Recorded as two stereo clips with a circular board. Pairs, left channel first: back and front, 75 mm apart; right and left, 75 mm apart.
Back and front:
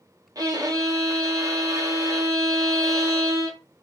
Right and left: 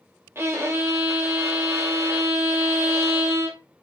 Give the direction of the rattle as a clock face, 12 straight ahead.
No rattle in this recording.